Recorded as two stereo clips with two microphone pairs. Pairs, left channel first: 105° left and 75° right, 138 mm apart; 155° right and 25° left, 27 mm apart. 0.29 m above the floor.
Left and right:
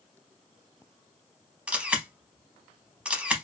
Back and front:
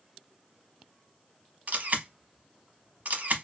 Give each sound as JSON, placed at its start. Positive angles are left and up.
{"t": 1.7, "sound": "a camera shutter", "azimuth_deg": 5, "distance_m": 0.7}